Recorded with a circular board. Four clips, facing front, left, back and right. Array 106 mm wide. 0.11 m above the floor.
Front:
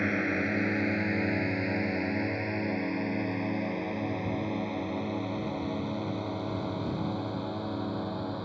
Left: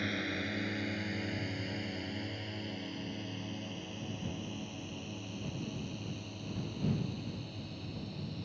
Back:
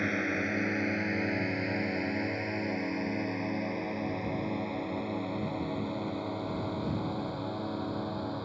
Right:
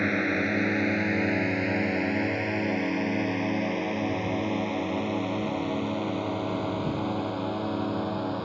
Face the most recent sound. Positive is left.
turn(degrees=-85)